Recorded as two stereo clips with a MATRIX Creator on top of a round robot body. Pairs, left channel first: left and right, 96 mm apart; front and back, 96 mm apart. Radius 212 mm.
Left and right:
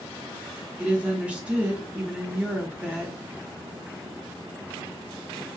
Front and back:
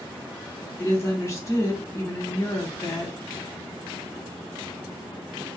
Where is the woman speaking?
25° right, 1.3 m.